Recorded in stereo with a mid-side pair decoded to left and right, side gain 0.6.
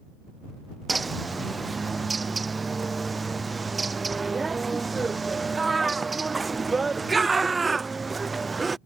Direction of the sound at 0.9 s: 20° right.